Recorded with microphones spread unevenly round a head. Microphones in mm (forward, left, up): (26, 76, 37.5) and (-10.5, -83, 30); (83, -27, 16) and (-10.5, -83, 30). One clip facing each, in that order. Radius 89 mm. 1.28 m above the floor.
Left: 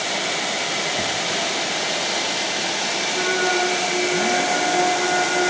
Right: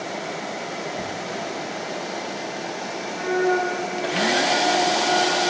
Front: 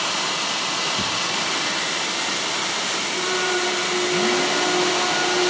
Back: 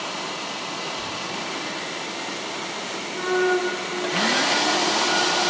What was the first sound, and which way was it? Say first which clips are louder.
Tearing paper: left 3 dB, front 5 dB; straight ahead.